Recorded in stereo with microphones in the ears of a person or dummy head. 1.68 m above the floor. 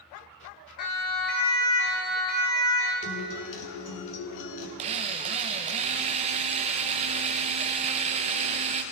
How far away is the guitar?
About 4 m.